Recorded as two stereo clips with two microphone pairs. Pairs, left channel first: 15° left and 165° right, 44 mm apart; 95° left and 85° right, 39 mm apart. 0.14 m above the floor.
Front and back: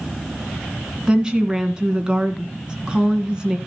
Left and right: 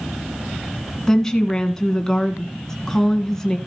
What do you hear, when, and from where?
1.1 s a woman speaking: 150° left, 1.7 m